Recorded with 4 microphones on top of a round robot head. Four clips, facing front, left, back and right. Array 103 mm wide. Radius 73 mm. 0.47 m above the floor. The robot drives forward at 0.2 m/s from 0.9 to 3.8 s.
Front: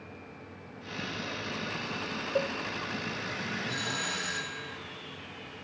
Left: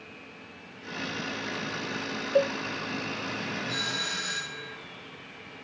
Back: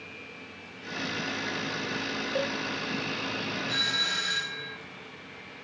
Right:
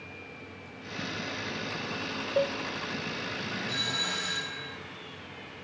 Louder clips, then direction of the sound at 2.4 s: Left 4 dB, front 1 dB; 90° left.